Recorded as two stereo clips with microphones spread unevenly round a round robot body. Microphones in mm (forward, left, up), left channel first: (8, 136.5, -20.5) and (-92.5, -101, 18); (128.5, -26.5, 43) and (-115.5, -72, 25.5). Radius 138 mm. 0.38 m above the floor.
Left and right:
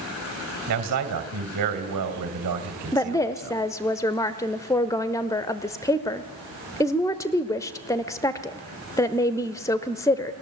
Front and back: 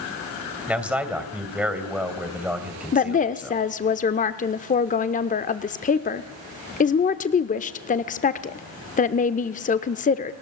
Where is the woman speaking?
25° left, 0.9 m.